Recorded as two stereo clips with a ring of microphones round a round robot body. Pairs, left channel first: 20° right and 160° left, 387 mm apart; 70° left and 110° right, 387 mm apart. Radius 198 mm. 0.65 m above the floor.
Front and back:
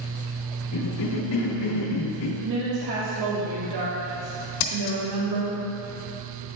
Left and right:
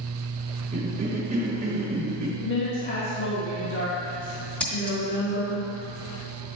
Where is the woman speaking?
125° left, 1.2 m.